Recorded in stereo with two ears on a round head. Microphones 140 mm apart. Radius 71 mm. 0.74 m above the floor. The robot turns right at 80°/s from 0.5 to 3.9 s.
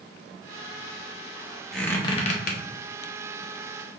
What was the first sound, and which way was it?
A squeak, centre (ahead or behind).